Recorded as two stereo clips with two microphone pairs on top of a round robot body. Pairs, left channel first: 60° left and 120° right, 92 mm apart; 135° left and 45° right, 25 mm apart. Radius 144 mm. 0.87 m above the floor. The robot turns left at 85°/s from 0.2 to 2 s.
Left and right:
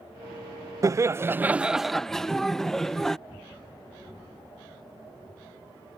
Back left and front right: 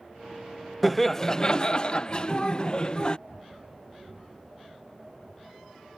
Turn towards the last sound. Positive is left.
turn(degrees=125)